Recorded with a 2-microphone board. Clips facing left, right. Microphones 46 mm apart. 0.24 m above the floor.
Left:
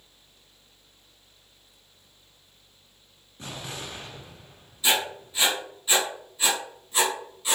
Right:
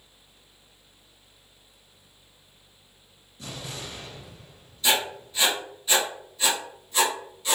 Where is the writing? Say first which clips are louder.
Even; 15° left (ahead or behind), 1.7 m.